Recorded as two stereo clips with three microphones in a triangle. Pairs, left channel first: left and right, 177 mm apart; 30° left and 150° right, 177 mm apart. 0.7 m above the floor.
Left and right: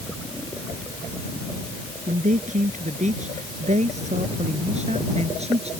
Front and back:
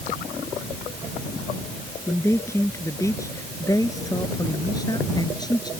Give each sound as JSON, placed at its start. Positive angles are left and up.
{"t": 2.1, "sound": "a man speaking", "azimuth_deg": -45}